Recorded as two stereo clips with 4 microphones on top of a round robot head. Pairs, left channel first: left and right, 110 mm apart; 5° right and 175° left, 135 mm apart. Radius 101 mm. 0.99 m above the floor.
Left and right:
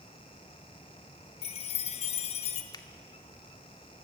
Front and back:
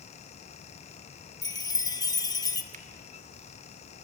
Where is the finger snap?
145° left, 1.7 m.